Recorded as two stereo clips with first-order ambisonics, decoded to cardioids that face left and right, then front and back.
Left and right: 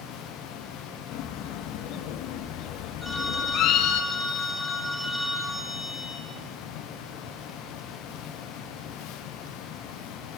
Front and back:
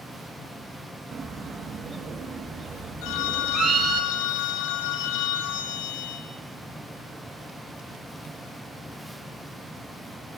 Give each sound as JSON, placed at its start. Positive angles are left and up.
{"t": 1.1, "sound": "a bird", "azimuth_deg": 115, "distance_m": 1.6}
{"t": 3.0, "sound": "a phone ringing", "azimuth_deg": 5, "distance_m": 4.0}